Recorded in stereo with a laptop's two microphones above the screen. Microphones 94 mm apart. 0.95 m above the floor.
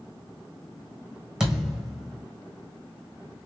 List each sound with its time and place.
1.4 s a thud: 10° right (ahead or behind), 2.5 m